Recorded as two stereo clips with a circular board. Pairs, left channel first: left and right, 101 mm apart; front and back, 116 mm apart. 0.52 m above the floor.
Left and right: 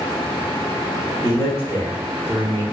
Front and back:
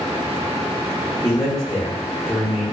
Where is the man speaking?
60° left, 1.1 m; by 2.6 s 50° left, 2.5 m.